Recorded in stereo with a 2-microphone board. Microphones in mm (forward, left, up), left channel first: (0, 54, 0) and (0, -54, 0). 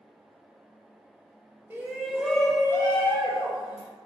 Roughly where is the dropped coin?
I don't hear a dropped coin.